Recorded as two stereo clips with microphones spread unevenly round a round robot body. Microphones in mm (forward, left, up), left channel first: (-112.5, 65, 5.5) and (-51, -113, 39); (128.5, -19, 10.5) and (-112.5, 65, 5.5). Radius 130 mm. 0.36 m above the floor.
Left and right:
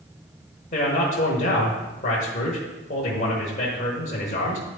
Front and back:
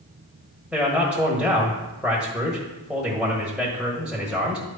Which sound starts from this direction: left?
A man speaking, at 0.7 s.